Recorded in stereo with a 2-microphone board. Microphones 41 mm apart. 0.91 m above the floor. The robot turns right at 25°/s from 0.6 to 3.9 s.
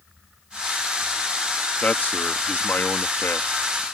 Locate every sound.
1.8 s a man speaking: 40° left; by 3.8 s 90° left